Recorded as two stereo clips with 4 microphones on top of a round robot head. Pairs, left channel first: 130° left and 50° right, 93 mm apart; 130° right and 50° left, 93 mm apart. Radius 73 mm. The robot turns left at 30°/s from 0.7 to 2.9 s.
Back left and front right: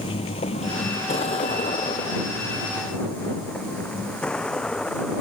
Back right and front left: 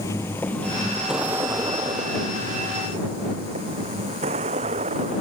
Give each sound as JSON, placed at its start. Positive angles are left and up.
{"t": 0.0, "sound": "a vehicle", "azimuth_deg": 170}